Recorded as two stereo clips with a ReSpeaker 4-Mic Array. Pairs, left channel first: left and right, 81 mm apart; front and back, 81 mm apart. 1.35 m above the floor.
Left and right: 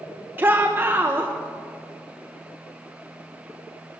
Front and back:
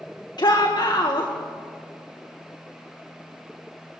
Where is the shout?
30° right, 1.6 m.